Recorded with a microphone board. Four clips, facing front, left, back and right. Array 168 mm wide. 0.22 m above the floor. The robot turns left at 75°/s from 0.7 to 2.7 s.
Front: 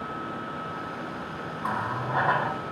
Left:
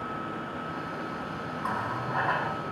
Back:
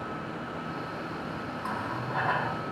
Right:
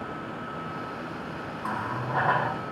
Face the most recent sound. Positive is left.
turn(degrees=-70)